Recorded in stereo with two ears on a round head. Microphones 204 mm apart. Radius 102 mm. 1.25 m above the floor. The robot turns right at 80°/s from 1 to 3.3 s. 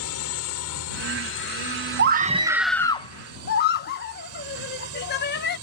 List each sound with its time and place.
0.0 s a drone: 75° left (ahead or behind); by 5.6 s 75° right (ahead or behind)
2.0 s a scream: 50° right (ahead or behind); by 5.6 s 45° left (ahead or behind)